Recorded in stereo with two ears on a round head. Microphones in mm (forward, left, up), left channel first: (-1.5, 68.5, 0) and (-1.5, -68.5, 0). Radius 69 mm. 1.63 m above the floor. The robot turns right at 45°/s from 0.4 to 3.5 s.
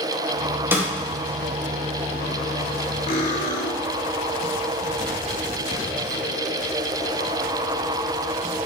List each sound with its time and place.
0.7 s a snare drum: 15° right (ahead or behind), 1.5 m; by 0.9 s 20° right (ahead or behind), 1.5 m
3.1 s cutlery clinking: 40° left (ahead or behind), 2.5 m; by 3.7 s 55° left (ahead or behind), 2.5 m